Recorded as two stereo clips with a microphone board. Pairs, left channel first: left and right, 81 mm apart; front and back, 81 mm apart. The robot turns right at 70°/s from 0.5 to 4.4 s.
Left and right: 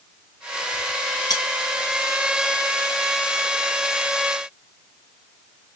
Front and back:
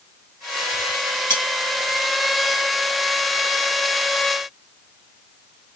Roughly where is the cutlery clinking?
Ahead left.